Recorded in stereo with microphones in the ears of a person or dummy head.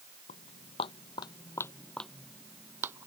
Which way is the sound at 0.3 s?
45° left (ahead or behind).